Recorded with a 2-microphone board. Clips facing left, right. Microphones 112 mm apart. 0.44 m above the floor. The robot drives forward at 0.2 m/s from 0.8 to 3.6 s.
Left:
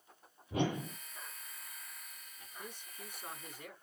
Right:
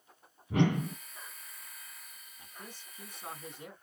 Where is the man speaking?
30° right (ahead or behind), 3 m.